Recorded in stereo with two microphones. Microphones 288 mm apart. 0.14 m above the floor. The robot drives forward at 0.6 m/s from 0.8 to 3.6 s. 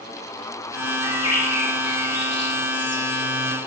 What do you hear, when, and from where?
1.0 s a bird: 60° left (ahead or behind), 4 m; by 3.2 s 65° left (ahead or behind), 3.5 m